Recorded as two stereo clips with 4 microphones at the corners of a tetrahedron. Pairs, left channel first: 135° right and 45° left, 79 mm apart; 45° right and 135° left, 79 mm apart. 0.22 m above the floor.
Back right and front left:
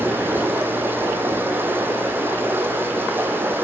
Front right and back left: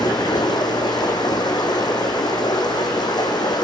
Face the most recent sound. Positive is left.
turn(degrees=-20)